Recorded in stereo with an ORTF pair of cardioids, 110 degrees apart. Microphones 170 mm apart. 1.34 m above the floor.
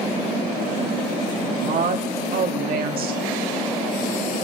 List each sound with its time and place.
1.6 s a woman speaking: 70° right, 2 m